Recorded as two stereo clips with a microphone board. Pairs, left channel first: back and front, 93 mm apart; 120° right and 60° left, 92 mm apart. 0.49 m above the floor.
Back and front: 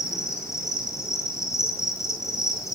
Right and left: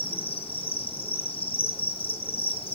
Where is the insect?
125° right, 5.5 m.